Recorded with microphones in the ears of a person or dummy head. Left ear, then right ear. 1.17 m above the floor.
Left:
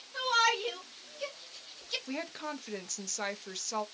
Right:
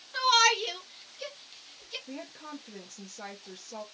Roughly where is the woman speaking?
Left.